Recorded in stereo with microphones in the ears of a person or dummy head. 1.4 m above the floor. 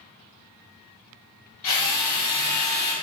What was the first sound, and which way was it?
A drill, 55° left (ahead or behind).